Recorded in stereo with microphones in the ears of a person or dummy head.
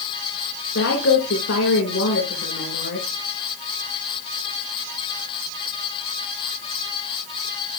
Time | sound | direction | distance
0.8 | a woman speaking | 60° left (ahead or behind) | 3 m